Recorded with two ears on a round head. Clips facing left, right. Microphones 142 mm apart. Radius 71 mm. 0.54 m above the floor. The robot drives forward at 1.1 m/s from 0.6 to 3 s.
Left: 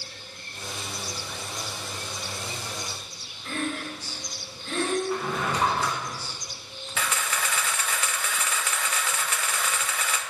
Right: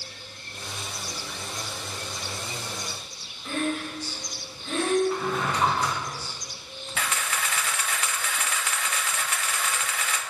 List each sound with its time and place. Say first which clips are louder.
3.5 s breathing: right 3 dB; 5° right (ahead or behind), 1.6 m
5.1 s a drawer: right 1 dB; 5° left (ahead or behind), 2.5 m
7.0 s a camera shutter: left 1 dB; 75° left (ahead or behind), 0.5 m